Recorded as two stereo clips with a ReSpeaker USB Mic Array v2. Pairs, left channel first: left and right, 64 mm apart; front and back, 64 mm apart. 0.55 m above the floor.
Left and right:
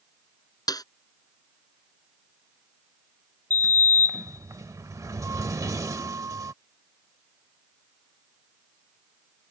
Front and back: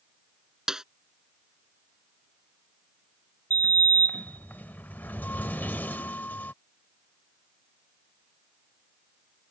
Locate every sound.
0.7 s a snare drum: 100° left
3.5 s a sliding door: 60° right